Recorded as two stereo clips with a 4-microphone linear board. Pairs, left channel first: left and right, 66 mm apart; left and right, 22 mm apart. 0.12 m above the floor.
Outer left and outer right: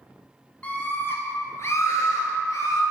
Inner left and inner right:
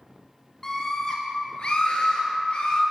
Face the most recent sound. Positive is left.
turn(degrees=60)  # may be behind; listen again after turning